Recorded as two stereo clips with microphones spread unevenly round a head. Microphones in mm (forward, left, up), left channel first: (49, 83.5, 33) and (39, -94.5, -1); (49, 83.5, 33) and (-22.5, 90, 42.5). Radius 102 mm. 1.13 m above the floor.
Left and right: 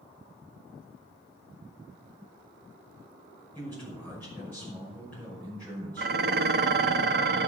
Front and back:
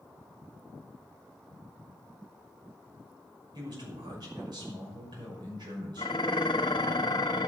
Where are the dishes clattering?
65° right, 0.9 m.